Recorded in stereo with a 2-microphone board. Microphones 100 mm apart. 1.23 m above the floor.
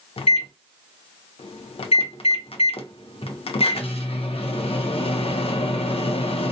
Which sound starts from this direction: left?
A microwave, at 0.2 s.